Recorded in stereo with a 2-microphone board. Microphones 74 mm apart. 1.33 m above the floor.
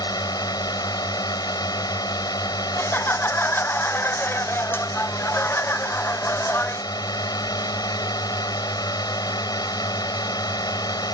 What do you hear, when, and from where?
0.0 s a drone: 60° left (ahead or behind)
2.8 s laughter: 30° left (ahead or behind)